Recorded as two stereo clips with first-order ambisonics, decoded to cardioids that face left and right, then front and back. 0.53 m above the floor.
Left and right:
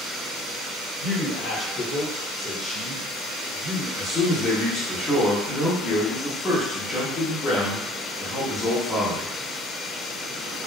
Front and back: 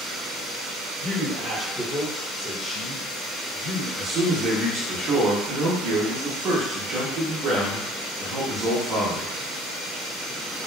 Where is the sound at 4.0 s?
150° left, 0.9 m.